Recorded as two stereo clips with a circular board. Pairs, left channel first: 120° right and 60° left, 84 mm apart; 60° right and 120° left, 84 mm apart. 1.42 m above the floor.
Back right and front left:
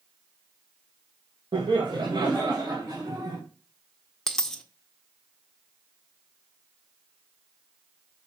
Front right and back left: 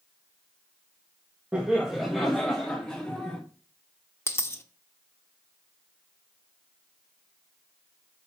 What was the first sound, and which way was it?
Laughter, 45° left.